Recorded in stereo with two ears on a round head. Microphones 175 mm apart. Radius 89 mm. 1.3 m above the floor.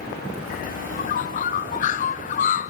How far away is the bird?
About 0.9 m.